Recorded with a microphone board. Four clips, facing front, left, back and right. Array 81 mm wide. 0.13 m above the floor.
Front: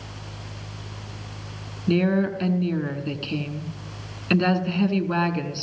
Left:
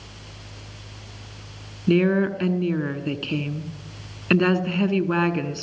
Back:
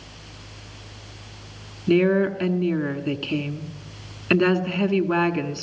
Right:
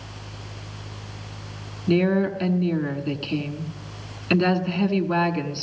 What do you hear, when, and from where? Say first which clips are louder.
1.9 s a woman speaking: left 1 dB, back 3 dB; 130° left, 1.1 m